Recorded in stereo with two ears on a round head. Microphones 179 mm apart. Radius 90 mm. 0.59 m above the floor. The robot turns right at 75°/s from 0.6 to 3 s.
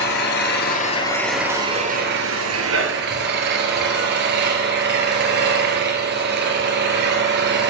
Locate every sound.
0.0 s an engine running: 125° left, 2.5 m; by 7.7 s 55° right, 2.5 m